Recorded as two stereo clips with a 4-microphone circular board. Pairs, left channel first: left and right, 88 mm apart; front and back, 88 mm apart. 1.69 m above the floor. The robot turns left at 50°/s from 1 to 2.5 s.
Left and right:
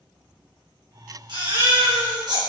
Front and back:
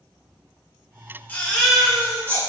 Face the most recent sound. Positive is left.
turn(degrees=-130)